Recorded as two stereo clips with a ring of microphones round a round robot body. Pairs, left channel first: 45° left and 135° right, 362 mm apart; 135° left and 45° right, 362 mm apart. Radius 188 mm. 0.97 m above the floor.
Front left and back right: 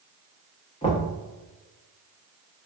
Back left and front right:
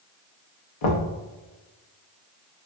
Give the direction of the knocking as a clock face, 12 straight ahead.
8 o'clock.